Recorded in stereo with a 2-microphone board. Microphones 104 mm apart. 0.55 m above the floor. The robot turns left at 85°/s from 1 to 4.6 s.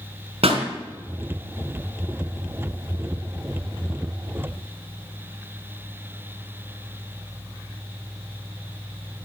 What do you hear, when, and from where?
0.4 s a pop: 70° right (ahead or behind), 3 m